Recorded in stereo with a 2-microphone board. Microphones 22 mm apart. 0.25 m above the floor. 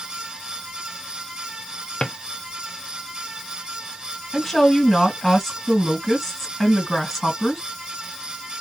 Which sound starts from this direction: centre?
A woman speaking, at 4.3 s.